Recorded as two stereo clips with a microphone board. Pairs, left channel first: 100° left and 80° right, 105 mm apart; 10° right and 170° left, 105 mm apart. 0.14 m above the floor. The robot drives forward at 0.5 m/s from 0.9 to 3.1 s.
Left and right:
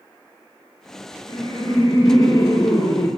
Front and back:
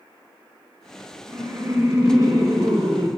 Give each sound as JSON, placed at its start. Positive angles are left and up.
{"t": 1.3, "sound": "laughter", "azimuth_deg": 110, "distance_m": 2.0}